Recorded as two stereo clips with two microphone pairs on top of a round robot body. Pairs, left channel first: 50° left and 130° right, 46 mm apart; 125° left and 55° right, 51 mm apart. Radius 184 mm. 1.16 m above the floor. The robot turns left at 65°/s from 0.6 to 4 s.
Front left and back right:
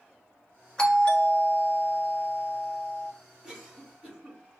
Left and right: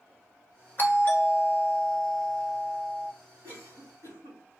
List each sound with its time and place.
0.8 s a doorbell: 125° left, 1.6 m; by 3.1 s 25° right, 1.6 m
3.4 s a cough: 35° right, 3.5 m; by 4.4 s 70° right, 3.5 m